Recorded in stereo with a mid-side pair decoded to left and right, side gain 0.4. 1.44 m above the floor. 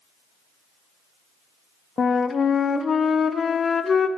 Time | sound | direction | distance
2.0 | a flute | 45° left | 0.5 m